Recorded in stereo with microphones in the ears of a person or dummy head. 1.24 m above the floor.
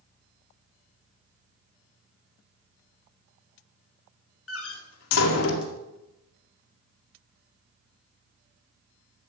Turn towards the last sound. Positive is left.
turn(degrees=75)  # may be behind; listen again after turning